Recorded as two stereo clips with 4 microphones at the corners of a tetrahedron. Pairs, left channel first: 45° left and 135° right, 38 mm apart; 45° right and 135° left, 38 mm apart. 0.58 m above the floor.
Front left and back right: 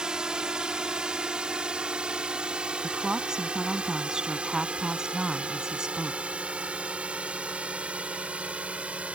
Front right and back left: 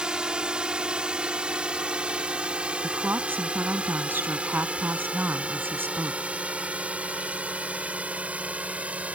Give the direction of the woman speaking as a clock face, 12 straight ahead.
7 o'clock.